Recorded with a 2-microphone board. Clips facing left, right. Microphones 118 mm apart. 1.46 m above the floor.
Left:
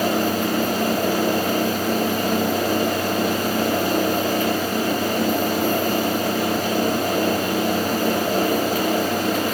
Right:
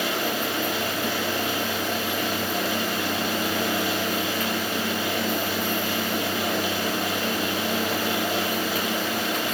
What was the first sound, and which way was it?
Only background noise.